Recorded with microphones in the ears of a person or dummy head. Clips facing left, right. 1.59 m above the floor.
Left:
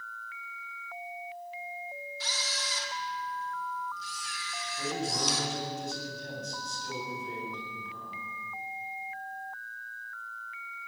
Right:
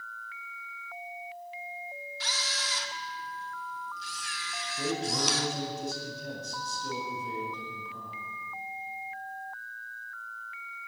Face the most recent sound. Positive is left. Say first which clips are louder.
# right 2 dB
turn(degrees=-75)  # may be behind; listen again after turning